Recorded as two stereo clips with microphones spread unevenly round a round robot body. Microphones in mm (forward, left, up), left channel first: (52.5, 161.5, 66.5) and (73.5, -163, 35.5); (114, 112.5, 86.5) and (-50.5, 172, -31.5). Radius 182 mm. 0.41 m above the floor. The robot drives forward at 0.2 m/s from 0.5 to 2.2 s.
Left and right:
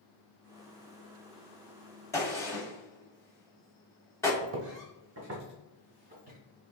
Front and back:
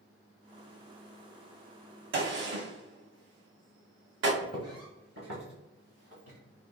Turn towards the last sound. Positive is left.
turn(degrees=-160)